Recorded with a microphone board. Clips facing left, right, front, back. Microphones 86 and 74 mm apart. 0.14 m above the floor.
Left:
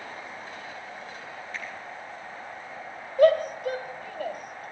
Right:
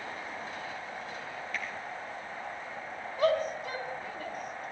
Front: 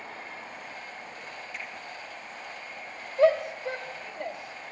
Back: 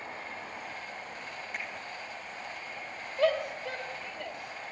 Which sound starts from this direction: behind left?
A finger snap, at 1.5 s.